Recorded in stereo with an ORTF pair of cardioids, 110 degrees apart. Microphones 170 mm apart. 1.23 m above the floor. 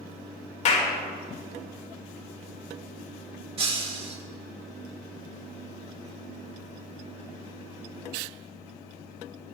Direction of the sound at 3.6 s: 35° right.